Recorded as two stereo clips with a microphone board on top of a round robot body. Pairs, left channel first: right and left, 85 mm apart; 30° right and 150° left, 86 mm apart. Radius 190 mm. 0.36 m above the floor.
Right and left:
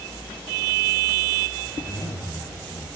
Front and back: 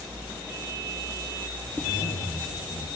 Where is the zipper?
50° right, 4.5 m.